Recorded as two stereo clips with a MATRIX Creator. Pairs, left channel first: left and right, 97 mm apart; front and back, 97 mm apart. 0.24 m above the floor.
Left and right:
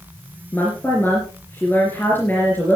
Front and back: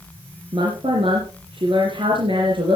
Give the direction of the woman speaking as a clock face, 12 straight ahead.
7 o'clock.